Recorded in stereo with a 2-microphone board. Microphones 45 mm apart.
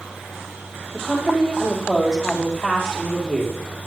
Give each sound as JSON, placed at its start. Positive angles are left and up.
{"t": 0.9, "sound": "a woman speaking", "side_deg": 5, "distance_m": 4.0}